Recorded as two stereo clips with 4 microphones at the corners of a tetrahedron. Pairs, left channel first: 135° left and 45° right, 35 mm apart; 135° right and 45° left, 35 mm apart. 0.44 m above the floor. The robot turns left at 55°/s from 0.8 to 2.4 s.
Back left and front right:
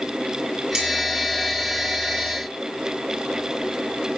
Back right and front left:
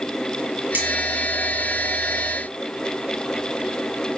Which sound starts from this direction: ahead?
Cutlery clinking, at 0.7 s.